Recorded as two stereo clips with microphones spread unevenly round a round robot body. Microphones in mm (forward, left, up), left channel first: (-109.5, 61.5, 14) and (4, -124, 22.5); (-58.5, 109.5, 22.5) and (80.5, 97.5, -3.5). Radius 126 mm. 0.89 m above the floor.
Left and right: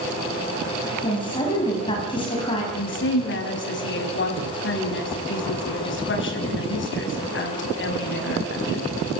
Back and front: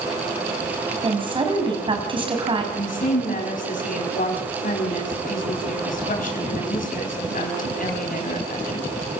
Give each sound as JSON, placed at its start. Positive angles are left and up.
{"t": 1.0, "sound": "a woman speaking", "azimuth_deg": 50, "distance_m": 6.0}
{"t": 2.7, "sound": "a woman speaking", "azimuth_deg": 155, "distance_m": 5.5}